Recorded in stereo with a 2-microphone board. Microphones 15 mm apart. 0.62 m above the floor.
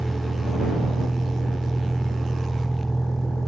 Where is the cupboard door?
No cupboard door in this recording.